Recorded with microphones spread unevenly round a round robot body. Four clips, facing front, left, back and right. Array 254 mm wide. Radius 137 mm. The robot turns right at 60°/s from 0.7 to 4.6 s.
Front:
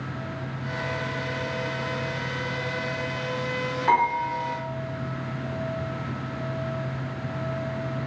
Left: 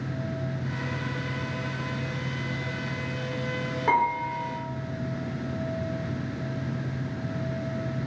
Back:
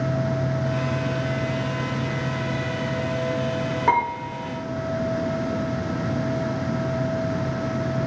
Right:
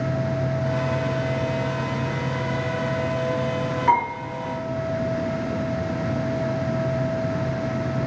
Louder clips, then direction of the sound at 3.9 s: Right 2 dB, front 1 dB; 165° left.